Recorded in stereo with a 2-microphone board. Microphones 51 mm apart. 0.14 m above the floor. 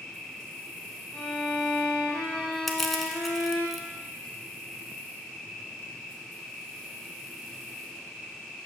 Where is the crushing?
Centre (ahead or behind), 0.7 m.